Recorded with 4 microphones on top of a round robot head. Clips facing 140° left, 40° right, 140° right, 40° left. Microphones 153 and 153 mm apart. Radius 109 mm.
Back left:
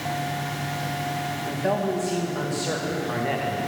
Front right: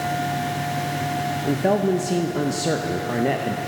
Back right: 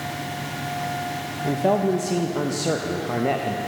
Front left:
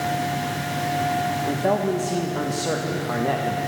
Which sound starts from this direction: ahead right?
A man speaking, at 1.4 s.